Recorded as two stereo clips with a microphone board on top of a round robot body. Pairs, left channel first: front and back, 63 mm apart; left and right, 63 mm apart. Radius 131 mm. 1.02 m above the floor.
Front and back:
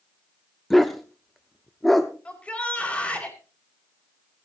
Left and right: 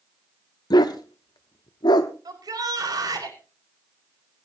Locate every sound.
0.7 s a dog barking: 90° left, 0.8 m
2.2 s a shout: 70° right, 5 m